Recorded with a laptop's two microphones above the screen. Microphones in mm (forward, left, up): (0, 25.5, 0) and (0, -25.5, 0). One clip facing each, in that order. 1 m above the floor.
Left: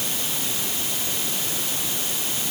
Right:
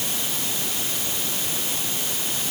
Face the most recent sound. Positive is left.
No sound to turn to.